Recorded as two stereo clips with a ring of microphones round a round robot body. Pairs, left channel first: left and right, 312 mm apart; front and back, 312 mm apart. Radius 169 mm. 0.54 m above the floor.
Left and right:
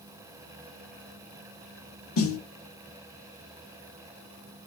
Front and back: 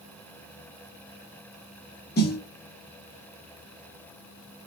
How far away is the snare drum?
About 0.9 m.